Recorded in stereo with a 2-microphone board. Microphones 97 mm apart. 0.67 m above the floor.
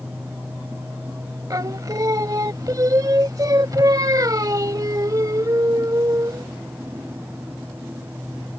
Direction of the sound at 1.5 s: 40° right (ahead or behind).